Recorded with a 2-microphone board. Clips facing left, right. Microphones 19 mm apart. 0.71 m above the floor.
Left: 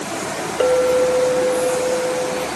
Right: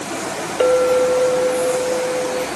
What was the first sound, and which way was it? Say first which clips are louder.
A clink: right 1 dB; 15° right (ahead or behind).